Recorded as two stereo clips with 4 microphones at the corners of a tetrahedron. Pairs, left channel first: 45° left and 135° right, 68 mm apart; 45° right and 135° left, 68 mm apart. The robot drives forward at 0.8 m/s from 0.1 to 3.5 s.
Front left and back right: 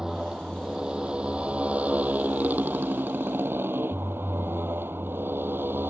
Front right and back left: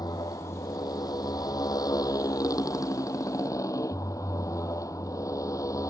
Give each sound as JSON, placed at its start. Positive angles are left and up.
{"t": 0.0, "sound": "a motorcycle", "azimuth_deg": -55}